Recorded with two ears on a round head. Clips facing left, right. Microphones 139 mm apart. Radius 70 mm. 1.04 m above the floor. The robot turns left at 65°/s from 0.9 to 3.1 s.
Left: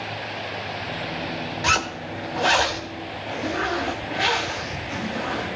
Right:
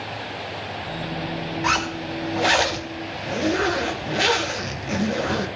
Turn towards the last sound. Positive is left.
turn(degrees=-55)